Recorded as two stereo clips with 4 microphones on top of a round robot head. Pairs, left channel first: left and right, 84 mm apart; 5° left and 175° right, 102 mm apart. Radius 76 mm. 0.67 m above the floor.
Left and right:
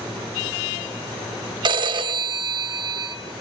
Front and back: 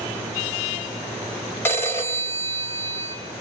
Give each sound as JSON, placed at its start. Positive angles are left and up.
{"t": 1.6, "sound": "a phone ringing", "azimuth_deg": -70, "distance_m": 2.5}